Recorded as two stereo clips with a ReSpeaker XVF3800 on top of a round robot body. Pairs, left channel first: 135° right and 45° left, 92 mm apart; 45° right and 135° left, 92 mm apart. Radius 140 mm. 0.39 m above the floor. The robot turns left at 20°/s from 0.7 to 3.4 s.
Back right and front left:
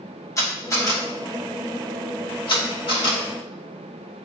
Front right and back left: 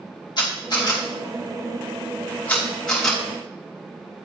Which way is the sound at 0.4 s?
80° right.